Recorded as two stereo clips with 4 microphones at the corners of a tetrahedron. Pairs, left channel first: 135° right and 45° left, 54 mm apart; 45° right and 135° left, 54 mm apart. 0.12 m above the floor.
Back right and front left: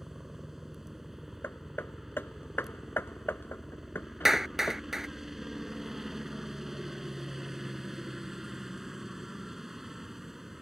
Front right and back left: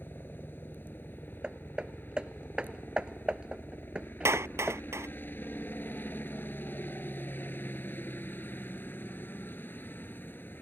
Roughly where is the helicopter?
Ahead right.